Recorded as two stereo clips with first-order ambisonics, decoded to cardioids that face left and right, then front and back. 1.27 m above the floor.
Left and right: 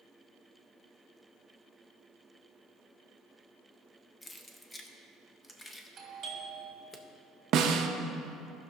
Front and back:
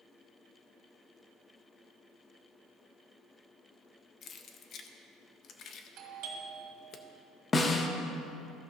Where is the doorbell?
150° right, 1.5 m.